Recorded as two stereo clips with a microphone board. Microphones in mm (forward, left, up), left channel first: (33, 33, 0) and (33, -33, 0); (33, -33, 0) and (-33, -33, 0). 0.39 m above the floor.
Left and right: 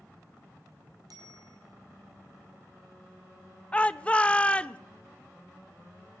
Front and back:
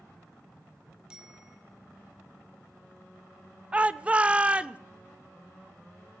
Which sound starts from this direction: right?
A bicycle bell, at 1.1 s.